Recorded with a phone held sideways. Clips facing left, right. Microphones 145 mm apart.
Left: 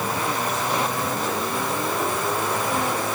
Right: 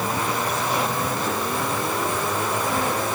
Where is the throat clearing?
No throat clearing in this recording.